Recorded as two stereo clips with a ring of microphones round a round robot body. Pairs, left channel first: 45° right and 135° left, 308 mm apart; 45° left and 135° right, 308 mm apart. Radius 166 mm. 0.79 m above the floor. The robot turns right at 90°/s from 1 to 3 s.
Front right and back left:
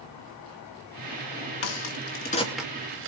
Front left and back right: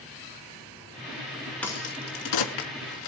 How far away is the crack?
About 2.5 m.